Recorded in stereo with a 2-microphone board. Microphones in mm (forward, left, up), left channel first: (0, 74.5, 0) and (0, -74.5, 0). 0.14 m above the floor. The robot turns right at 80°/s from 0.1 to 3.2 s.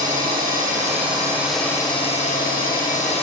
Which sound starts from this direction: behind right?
An engine running, at 0.0 s.